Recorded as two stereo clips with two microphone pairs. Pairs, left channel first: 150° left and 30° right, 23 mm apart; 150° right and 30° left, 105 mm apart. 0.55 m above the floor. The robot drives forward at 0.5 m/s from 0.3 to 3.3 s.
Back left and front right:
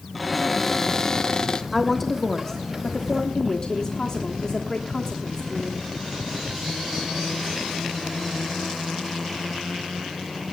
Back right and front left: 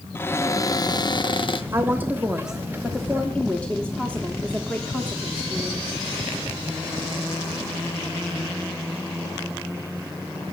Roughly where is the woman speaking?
Ahead left.